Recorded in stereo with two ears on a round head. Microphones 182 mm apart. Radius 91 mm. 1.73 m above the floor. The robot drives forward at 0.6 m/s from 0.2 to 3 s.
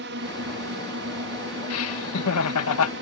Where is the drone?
60° right (ahead or behind); by 3.0 s 65° right (ahead or behind).